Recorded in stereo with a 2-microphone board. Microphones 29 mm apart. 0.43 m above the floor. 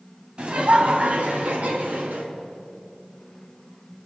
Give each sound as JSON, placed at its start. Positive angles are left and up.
{"t": 0.4, "sound": "laughter", "side_deg": -40, "distance_m": 2.5}